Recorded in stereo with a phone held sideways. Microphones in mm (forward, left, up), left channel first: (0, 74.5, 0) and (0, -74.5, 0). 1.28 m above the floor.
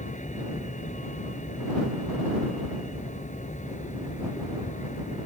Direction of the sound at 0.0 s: 55° left (ahead or behind).